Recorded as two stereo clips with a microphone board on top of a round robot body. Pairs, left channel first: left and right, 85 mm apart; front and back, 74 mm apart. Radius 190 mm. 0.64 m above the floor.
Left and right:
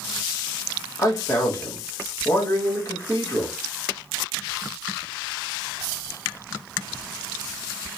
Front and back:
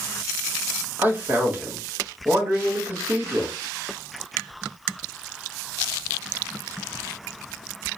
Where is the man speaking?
125° left, 1.5 m.